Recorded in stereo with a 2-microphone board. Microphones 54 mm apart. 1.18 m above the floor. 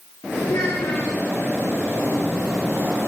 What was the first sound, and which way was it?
A child speaking, 75° left (ahead or behind).